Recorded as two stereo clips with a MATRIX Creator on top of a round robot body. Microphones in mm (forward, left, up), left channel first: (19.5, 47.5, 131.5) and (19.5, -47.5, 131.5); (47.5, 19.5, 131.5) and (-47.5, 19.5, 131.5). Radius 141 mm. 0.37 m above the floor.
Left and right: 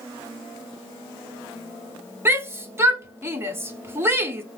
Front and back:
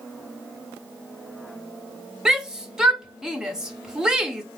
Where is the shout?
105° right, 1.3 m.